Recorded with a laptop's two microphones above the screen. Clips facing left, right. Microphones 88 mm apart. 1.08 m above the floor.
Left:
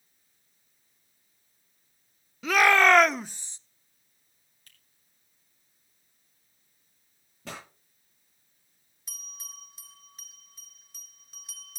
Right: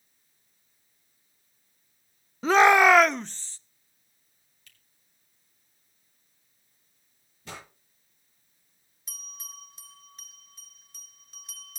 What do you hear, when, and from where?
2.4 s a shout: 35° right (ahead or behind), 0.5 m; by 3.6 s 20° left (ahead or behind), 0.8 m
4.7 s a finger snap: 40° left (ahead or behind), 3 m
7.5 s a pop: 80° left, 9.5 m
9.1 s a bell: centre (ahead or behind), 0.6 m